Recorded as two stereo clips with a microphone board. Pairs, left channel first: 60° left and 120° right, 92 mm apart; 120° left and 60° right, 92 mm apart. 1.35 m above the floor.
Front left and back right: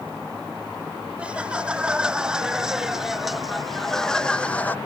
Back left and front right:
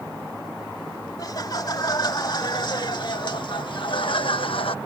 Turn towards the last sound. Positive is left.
turn(degrees=130)